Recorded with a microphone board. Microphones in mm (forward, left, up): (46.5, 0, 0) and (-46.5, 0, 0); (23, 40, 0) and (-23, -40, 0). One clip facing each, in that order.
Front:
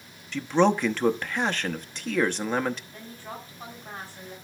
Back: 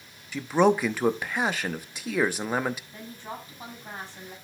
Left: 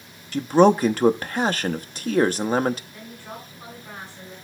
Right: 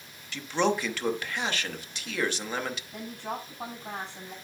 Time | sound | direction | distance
0.3 | a man speaking | 100° left | 0.8 m
2.9 | a woman speaking | 110° right | 7 m